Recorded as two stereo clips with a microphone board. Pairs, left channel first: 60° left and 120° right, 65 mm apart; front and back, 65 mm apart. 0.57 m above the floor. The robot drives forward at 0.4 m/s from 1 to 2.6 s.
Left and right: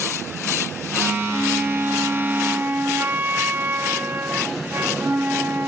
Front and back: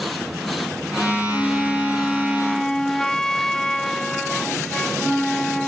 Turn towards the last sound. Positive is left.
turn(degrees=-80)